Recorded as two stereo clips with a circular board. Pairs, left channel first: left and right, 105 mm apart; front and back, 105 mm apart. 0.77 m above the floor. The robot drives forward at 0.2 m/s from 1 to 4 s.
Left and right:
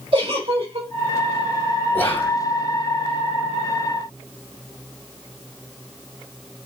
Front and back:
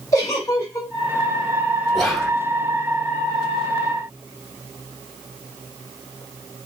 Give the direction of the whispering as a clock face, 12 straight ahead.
9 o'clock.